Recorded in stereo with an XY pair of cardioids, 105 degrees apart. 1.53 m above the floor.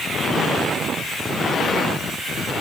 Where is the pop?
I don't hear a pop.